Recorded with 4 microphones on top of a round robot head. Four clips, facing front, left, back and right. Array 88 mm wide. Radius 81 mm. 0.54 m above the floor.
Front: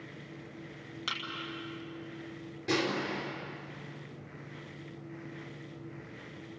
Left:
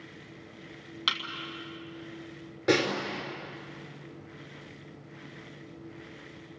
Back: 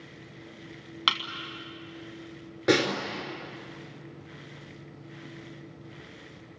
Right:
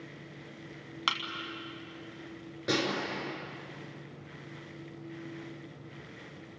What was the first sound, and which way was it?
A thud, 155° right.